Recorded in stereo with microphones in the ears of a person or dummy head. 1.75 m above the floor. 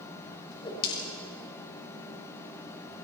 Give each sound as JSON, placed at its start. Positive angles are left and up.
{"t": 0.5, "sound": "a whoosh", "side_deg": 30, "distance_m": 5.0}